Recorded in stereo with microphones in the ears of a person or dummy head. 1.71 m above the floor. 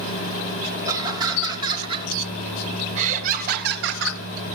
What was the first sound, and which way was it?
Laughter, 20° right (ahead or behind).